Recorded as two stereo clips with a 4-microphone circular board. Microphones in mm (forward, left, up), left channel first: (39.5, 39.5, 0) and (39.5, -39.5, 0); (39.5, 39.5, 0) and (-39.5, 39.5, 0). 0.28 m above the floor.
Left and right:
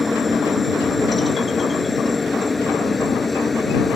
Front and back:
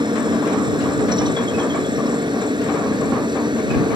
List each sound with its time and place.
0.0 s a helicopter: straight behind